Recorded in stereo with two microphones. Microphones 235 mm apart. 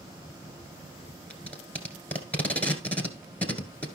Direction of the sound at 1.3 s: 5° left (ahead or behind).